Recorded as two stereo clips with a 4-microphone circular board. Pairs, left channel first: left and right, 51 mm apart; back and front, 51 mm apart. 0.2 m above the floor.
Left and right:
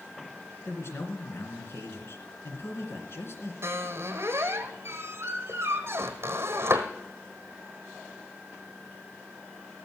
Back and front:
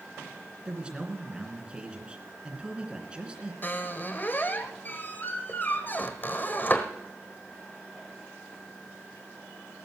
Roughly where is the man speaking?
Left.